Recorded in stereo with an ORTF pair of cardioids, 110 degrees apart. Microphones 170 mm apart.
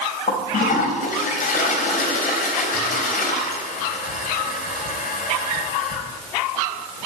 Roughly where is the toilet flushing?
Ahead left.